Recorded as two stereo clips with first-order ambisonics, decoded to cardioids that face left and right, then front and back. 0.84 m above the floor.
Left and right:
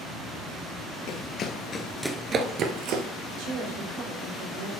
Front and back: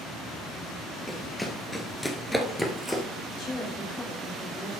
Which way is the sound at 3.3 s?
65° right.